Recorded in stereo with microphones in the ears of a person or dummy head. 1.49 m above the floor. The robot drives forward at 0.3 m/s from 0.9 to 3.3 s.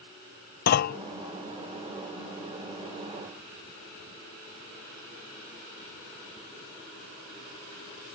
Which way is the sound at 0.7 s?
50° left (ahead or behind).